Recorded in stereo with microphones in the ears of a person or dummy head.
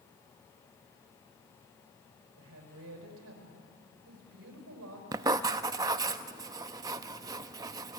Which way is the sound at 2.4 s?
80° right.